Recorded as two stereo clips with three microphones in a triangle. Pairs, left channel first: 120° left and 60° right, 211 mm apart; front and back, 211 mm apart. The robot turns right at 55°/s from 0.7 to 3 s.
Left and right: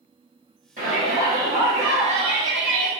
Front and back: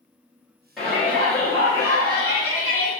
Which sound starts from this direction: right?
A shout, at 0.8 s.